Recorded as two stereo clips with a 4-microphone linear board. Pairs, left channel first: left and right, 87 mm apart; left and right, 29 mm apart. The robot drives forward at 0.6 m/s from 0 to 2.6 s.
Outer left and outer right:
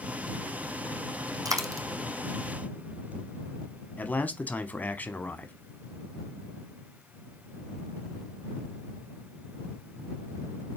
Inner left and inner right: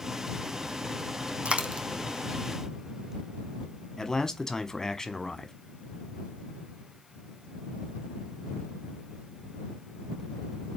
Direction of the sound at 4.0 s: 20° left (ahead or behind).